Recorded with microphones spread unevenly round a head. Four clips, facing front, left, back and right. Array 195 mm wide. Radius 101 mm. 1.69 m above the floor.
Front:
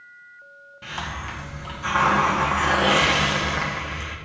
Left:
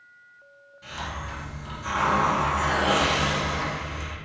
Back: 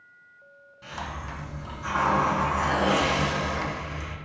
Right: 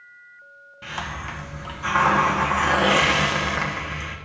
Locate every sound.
0.8 s a hiss: 50° right, 1.8 m